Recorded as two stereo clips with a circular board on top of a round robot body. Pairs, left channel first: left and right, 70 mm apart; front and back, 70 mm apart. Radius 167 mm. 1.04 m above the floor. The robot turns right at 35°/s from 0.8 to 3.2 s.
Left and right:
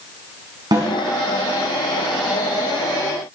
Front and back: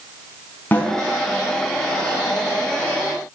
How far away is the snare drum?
About 4.5 m.